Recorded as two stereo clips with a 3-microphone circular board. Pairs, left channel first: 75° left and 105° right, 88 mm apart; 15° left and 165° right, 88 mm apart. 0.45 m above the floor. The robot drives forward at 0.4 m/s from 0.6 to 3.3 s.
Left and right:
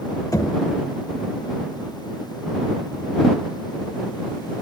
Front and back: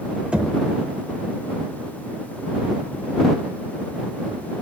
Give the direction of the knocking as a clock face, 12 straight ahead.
8 o'clock.